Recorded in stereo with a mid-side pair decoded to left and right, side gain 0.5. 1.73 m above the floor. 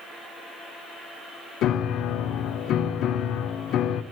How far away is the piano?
About 0.6 m.